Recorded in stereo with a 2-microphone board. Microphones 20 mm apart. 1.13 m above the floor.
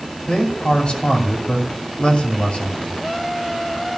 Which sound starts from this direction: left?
A man speaking, at 0.3 s.